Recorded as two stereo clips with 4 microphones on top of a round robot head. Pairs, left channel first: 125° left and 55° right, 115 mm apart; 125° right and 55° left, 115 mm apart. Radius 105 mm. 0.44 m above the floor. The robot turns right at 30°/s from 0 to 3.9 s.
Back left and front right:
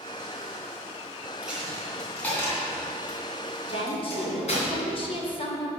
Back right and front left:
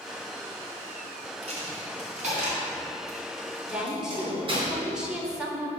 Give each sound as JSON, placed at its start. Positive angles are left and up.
{"t": 1.4, "sound": "a dropped coin", "azimuth_deg": 25, "distance_m": 3.0}
{"t": 3.6, "sound": "a woman speaking", "azimuth_deg": 130, "distance_m": 2.0}